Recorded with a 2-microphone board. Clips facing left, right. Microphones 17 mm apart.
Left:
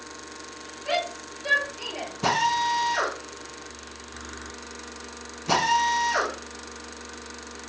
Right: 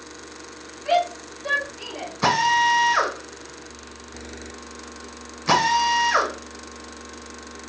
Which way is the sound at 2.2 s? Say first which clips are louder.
Right 5 dB; 75° right (ahead or behind).